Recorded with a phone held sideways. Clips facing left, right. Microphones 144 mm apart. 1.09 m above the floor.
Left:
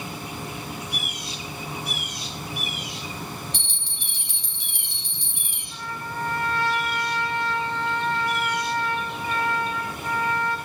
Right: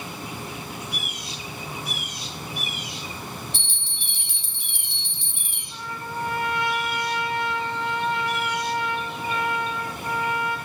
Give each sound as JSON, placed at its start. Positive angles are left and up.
{"t": 3.5, "sound": "a bell", "side_deg": 15, "distance_m": 2.0}
{"t": 5.7, "sound": "a trumpet", "side_deg": -15, "distance_m": 1.1}